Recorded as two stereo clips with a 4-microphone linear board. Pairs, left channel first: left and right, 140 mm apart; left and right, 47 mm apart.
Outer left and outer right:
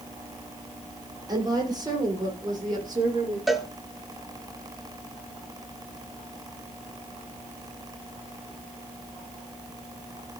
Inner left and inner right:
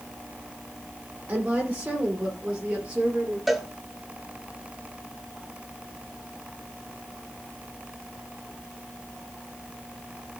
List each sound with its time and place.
1.3 s a woman speaking: 30° right (ahead or behind), 8 m; by 3.4 s 25° right (ahead or behind), 9.5 m
3.5 s a cowbell: centre (ahead or behind), 1.2 m